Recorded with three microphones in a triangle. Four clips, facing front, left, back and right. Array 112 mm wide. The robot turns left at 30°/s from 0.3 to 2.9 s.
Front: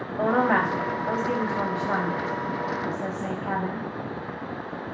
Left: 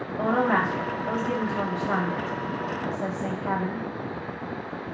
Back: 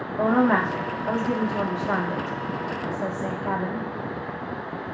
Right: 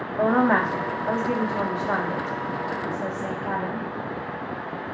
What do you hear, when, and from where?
0.2 s a woman speaking: 145° right, 0.8 m; by 3.9 s 135° left, 0.8 m